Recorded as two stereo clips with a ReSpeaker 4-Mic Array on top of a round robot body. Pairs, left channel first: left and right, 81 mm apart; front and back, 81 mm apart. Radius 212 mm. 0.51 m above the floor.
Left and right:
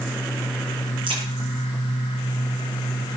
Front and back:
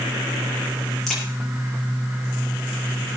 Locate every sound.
1.1 s a crack: 85° right, 7 m